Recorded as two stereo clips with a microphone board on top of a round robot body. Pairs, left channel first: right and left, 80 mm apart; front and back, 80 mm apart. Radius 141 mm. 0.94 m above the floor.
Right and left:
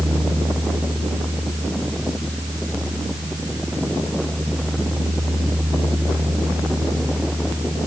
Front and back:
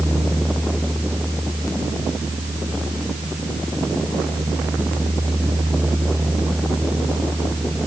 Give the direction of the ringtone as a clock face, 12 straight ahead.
No ringtone in this recording.